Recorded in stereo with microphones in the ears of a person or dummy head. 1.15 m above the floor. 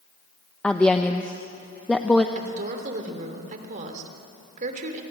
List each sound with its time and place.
0.6 s a woman speaking: centre (ahead or behind), 0.7 m
2.4 s a woman speaking: 45° right (ahead or behind), 3 m